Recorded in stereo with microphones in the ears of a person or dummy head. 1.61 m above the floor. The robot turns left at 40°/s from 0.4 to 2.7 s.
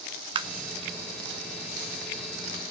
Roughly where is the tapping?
Right.